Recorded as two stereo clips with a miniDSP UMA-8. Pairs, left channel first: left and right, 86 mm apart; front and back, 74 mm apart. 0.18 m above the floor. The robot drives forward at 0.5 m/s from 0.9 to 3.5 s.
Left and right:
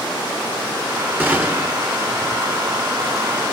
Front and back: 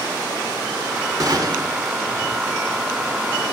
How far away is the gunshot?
About 1.7 m.